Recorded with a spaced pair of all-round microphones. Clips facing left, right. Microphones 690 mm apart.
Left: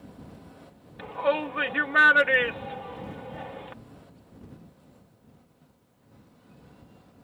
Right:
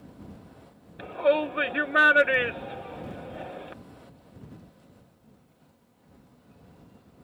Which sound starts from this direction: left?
A shout, at 1.0 s.